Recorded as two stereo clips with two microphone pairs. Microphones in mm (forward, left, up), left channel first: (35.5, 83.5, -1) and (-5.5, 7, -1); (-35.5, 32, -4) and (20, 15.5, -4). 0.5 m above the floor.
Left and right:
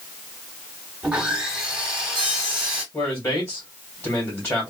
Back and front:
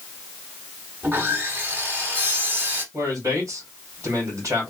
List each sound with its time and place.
1.0 s sawing: 40° right, 1.3 m
2.9 s a man speaking: 10° left, 2 m